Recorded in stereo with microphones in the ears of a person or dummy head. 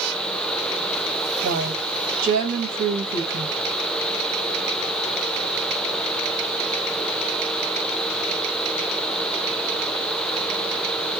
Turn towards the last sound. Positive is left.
turn(degrees=-45)  # may be behind; listen again after turning